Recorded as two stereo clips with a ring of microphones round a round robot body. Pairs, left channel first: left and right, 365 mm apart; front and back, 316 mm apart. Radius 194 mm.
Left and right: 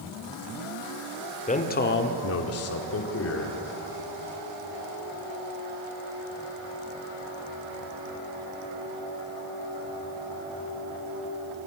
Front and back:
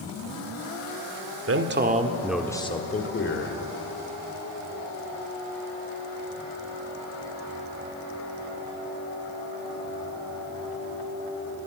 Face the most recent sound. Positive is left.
turn(degrees=40)